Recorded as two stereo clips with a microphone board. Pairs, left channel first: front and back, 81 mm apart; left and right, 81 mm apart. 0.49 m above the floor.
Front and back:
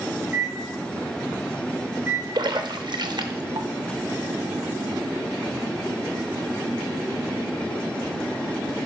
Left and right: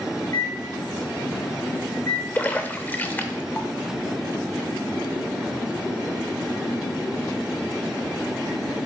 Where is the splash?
155° left, 0.5 m.